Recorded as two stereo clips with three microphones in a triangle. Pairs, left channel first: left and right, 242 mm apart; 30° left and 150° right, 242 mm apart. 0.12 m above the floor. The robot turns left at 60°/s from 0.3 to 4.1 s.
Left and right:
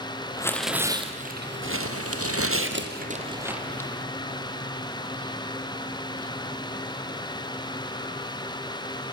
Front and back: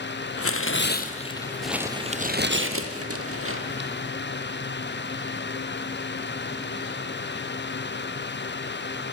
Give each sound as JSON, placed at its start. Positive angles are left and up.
{"t": 0.4, "sound": "tearing paper", "azimuth_deg": 15, "distance_m": 2.0}